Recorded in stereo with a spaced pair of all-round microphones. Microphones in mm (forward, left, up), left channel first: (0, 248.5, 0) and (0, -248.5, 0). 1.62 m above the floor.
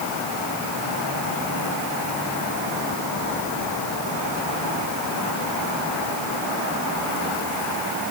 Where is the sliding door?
I don't hear a sliding door.